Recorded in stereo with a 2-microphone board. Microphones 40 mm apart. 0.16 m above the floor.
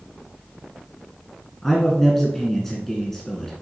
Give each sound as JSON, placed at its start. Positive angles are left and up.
{"t": 1.6, "sound": "a man speaking", "side_deg": 5, "distance_m": 1.4}